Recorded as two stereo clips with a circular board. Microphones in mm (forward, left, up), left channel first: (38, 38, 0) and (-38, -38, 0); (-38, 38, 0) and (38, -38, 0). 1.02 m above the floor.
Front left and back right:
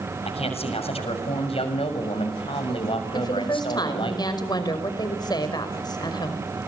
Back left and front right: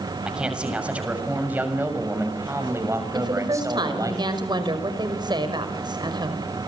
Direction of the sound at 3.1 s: Straight ahead.